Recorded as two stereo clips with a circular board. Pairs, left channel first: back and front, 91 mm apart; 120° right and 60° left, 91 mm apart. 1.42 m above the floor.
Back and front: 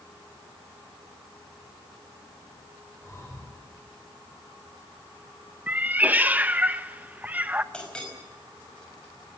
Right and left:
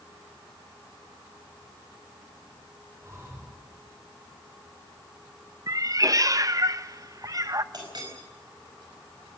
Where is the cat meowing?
60° left, 0.7 m.